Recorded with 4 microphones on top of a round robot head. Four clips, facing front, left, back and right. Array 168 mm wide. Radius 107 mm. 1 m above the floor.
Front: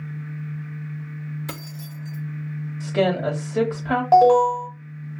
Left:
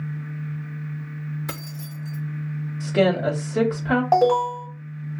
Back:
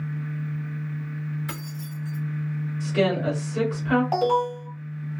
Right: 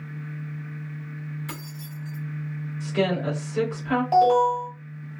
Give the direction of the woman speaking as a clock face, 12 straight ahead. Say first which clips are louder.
Left 5 dB, front 2 dB; 10 o'clock.